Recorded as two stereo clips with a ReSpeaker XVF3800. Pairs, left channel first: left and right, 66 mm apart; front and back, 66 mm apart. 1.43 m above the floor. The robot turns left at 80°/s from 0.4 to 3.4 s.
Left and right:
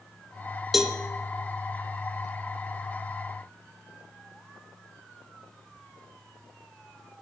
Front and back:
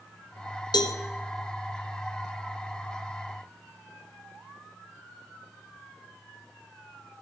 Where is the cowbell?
Straight ahead, 0.6 m; by 1.0 s 20° right, 0.6 m.